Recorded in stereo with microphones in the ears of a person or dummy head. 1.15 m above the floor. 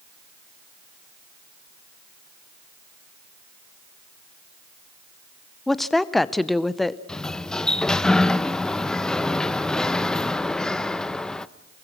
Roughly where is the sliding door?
Centre.